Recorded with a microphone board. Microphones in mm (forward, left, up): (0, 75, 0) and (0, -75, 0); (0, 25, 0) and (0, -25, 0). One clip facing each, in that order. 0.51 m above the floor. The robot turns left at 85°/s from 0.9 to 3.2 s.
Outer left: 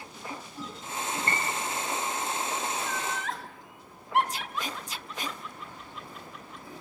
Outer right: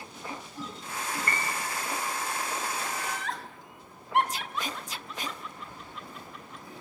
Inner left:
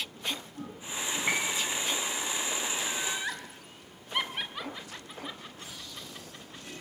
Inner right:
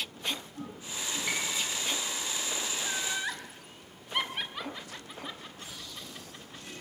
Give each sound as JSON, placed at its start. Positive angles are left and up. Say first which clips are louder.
{"t": 1.3, "sound": "a piano", "louder": "outer left 2 dB, inner left 4 dB", "azimuth_deg": 30, "distance_m": 4.5}
{"t": 2.8, "sound": "laughter", "louder": "outer left 1 dB, even", "side_deg": -30, "distance_m": 3.0}